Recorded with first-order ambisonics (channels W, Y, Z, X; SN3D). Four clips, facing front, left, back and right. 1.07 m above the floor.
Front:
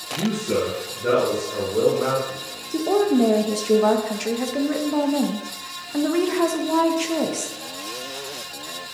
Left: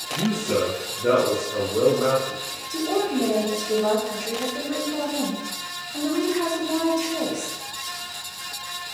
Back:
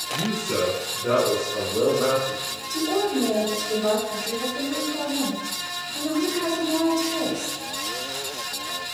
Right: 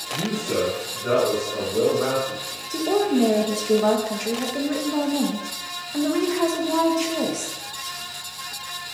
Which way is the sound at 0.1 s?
45° left.